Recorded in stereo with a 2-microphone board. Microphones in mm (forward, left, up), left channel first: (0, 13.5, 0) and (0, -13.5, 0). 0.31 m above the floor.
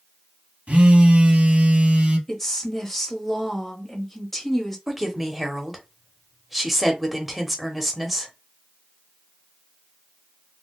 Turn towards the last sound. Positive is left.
turn(degrees=-5)  # may be behind; listen again after turning